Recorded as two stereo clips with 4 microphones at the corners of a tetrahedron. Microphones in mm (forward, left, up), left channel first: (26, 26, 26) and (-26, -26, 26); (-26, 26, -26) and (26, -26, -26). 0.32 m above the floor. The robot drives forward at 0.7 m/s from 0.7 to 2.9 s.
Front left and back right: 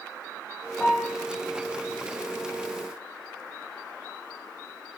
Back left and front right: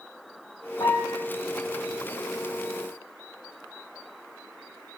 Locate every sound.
0.8 s a piano: 120° left, 3 m; by 1.2 s 125° left, 3.5 m